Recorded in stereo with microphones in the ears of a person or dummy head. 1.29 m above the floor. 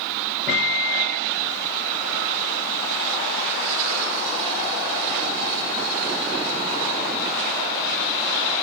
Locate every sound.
0.5 s a microwave: centre (ahead or behind), 5.5 m